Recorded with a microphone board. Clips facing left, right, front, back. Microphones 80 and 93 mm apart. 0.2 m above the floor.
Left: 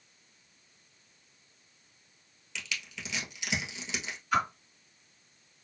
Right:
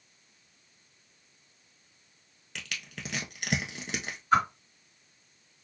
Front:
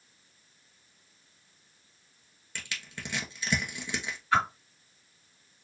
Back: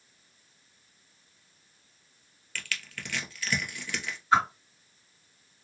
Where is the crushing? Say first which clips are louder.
Left 1 dB, back 2 dB; 65° right, 1.2 m.